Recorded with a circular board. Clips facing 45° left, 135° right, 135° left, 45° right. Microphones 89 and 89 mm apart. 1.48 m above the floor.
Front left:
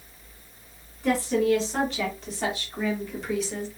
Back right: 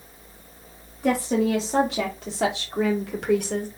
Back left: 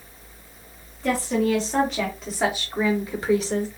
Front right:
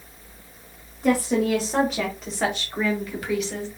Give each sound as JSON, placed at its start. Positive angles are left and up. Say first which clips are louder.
{"t": 1.0, "sound": "a woman speaking", "louder": "back right 1 dB, front right 1 dB", "azimuth_deg": -115, "distance_m": 1.8}